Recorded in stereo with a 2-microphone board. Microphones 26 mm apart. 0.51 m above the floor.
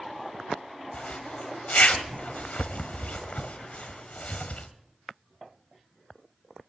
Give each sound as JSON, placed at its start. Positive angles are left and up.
{"t": 0.9, "sound": "a zipper", "side_deg": 75, "distance_m": 1.3}